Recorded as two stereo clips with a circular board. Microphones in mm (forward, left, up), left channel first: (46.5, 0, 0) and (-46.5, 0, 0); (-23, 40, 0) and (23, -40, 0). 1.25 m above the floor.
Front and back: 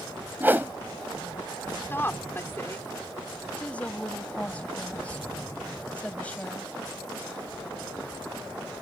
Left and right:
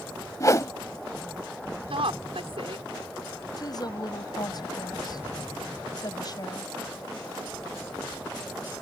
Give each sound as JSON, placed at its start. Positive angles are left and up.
{"t": 0.4, "sound": "a whoosh", "azimuth_deg": 130}
{"t": 1.9, "sound": "a woman speaking", "azimuth_deg": -65}
{"t": 3.6, "sound": "a woman speaking", "azimuth_deg": 75}